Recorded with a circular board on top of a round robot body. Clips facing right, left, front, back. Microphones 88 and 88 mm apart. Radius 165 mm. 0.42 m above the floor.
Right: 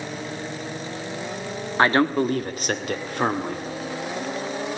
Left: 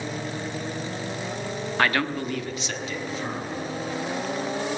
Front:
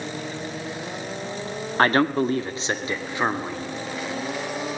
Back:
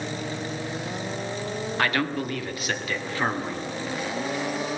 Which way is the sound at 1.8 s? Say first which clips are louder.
Right 6 dB, front 8 dB; 35° right.